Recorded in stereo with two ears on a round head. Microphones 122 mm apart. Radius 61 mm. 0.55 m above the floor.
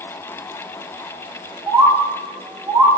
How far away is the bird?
About 1.1 m.